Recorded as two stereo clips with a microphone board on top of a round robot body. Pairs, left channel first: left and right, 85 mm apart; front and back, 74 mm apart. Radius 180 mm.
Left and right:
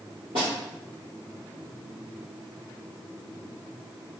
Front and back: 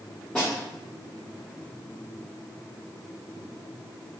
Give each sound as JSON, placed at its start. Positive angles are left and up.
{"t": 0.3, "sound": "a snare drum", "azimuth_deg": -80, "distance_m": 0.9}